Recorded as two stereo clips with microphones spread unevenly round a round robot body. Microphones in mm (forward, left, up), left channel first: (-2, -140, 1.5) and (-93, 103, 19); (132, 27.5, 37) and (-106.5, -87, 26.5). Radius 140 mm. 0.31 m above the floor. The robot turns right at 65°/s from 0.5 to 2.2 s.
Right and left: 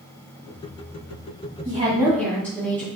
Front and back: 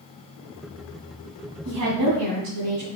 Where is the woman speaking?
170° left, 2.5 m; by 2.9 s 155° right, 2.5 m.